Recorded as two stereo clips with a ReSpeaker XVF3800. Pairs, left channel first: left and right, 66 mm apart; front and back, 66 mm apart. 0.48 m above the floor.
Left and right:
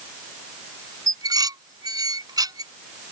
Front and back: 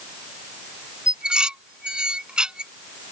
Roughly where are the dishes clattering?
Right.